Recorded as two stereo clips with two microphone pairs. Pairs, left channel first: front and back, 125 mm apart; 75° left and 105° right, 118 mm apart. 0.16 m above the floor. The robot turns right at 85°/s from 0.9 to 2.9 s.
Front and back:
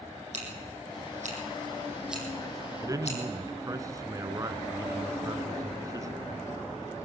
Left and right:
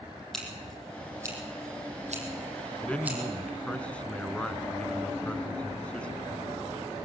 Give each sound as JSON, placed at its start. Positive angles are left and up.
{"t": 0.3, "sound": "scissors", "azimuth_deg": 160, "distance_m": 6.5}
{"t": 2.8, "sound": "a man speaking", "azimuth_deg": 140, "distance_m": 1.3}